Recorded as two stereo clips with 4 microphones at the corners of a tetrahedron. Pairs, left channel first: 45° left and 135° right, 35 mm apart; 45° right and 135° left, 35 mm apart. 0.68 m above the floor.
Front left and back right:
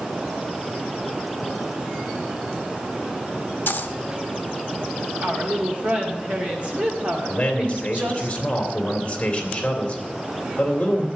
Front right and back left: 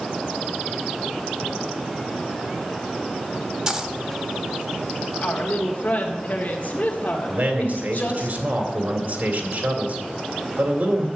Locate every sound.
3.7 s a dropped coin: 65° left, 0.9 m
5.2 s a woman speaking: 95° right, 1.9 m
7.3 s a man speaking: 105° left, 3 m